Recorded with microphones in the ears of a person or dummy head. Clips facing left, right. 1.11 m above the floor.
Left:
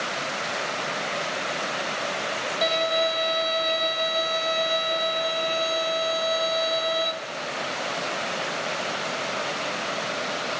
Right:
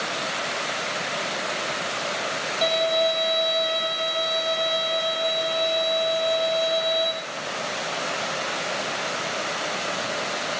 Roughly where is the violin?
Centre.